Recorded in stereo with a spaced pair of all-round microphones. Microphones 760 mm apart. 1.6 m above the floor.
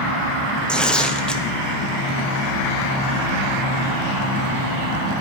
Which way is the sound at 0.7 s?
Centre (ahead or behind).